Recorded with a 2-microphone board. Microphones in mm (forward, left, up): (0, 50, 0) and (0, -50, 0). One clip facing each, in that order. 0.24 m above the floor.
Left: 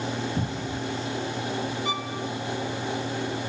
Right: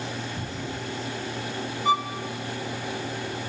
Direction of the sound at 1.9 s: 40° right (ahead or behind).